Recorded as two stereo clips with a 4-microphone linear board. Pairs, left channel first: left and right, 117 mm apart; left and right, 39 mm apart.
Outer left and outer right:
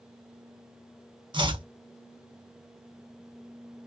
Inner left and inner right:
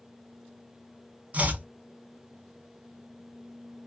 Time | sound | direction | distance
1.3 | chopping | 40° right (ahead or behind) | 0.5 m